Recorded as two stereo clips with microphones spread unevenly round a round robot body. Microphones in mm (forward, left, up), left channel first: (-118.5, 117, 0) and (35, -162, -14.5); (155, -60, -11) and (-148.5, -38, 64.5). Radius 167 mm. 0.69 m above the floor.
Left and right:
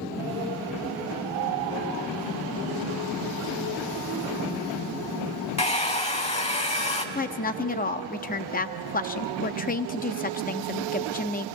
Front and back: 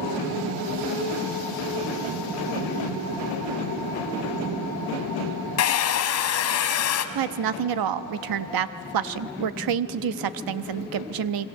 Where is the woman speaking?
Straight behind, 0.8 m.